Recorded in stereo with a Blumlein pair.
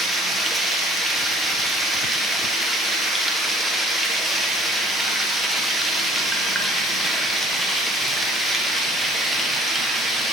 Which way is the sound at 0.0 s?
5° right.